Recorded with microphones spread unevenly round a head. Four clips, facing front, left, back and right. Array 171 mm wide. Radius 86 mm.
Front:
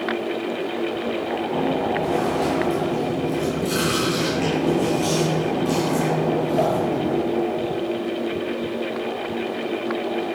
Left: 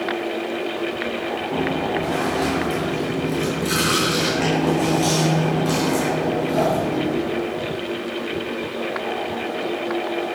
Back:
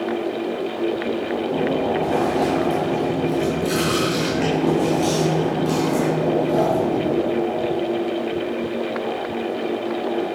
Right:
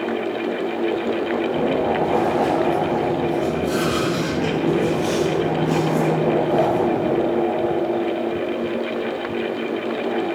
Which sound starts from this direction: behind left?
Chewing, at 1.5 s.